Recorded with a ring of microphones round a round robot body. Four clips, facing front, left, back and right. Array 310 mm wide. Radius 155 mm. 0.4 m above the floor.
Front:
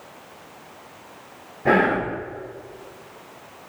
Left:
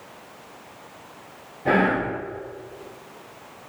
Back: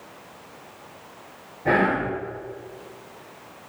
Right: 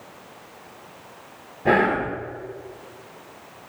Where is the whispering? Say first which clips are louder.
Right 1 dB, front 2 dB; 35° right, 0.8 m.